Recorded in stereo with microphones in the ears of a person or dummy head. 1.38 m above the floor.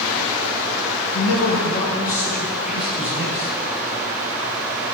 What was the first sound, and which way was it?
A man speaking, 70° left (ahead or behind).